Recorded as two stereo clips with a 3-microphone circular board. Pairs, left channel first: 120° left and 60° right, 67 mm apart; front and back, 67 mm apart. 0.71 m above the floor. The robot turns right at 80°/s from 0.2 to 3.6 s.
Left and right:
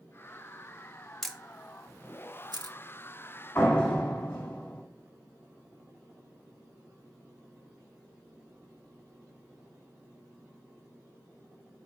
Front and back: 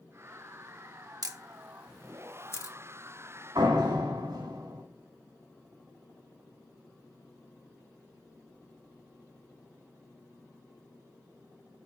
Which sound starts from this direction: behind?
A door slam, at 3.5 s.